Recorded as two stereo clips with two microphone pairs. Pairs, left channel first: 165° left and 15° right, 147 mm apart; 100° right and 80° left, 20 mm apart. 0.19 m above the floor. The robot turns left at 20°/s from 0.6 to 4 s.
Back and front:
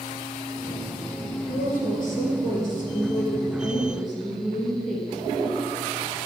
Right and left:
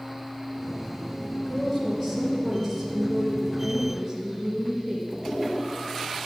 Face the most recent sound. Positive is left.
turn(degrees=140)